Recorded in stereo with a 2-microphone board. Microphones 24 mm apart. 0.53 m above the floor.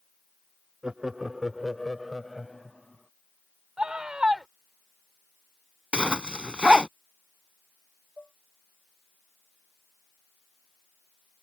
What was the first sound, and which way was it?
Laughter, 35° right (ahead or behind).